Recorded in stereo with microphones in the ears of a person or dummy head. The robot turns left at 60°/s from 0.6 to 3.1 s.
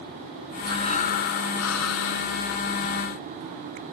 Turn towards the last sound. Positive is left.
turn(degrees=10)